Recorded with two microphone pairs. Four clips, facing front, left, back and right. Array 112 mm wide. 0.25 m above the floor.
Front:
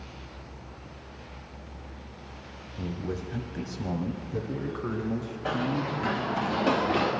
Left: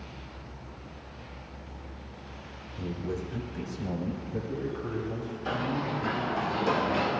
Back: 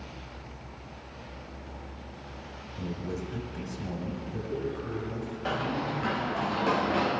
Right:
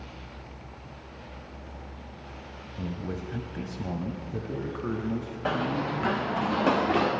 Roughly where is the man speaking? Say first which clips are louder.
Left 1 dB, front 1 dB; ahead right.